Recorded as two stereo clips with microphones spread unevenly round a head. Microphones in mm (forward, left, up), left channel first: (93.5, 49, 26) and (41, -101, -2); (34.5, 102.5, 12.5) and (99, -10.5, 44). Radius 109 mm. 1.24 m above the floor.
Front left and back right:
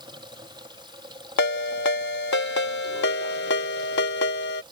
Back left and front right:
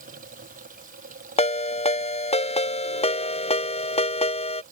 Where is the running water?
45° right.